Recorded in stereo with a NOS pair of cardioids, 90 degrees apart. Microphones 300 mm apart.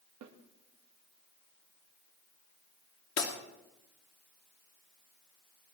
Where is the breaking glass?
55° left, 2.5 m.